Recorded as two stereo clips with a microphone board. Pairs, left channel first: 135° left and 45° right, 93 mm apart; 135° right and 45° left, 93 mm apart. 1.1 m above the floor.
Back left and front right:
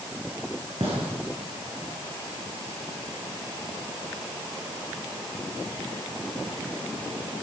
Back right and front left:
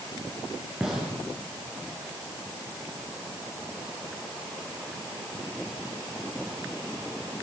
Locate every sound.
0.8 s a gunshot: 40° right, 5.5 m